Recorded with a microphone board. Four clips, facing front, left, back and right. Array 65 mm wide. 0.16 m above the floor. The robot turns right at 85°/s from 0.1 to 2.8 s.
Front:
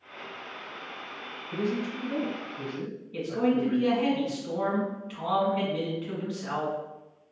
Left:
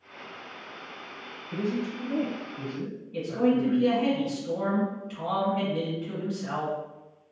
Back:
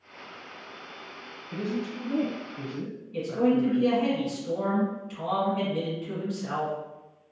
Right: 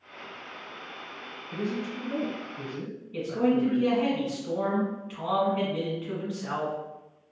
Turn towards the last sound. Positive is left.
turn(degrees=-40)